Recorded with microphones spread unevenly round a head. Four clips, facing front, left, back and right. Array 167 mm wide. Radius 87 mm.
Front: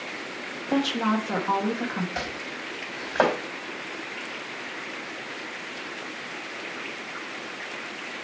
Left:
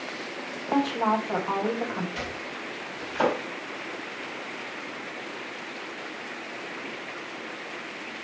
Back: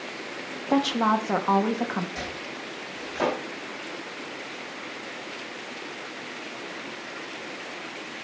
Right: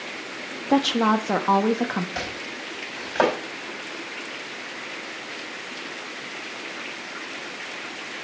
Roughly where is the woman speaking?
Right.